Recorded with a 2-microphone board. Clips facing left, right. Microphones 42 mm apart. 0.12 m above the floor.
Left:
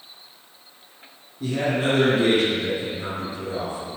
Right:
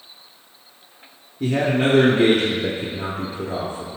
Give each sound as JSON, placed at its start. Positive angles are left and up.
{"t": 1.4, "sound": "a man speaking", "side_deg": -60, "distance_m": 3.0}